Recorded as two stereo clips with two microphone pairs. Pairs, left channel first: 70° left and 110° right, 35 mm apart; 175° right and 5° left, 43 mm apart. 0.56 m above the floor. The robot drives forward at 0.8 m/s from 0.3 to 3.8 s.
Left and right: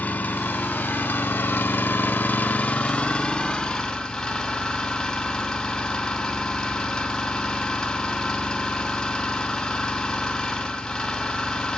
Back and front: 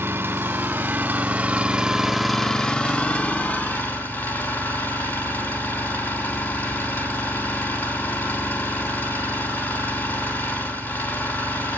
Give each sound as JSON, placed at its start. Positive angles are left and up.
{"t": 0.0, "sound": "an engine running", "azimuth_deg": 30, "distance_m": 1.8}